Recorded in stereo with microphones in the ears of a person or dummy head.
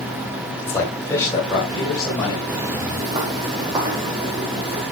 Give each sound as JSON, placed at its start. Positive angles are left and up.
{"t": 0.6, "sound": "a man speaking", "side_deg": 10, "distance_m": 3.5}
{"t": 2.5, "sound": "footsteps", "side_deg": -20, "distance_m": 1.6}